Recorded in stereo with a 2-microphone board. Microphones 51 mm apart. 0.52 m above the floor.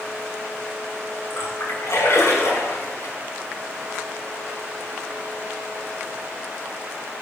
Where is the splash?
70° left (ahead or behind), 5.5 m.